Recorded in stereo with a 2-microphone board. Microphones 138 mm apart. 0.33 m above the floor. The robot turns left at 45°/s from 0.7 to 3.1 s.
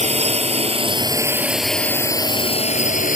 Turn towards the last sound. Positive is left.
turn(degrees=70)  # may be behind; listen again after turning